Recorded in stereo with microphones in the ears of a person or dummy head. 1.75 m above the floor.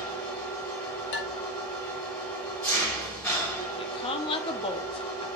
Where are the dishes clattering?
60° left (ahead or behind), 1.9 m.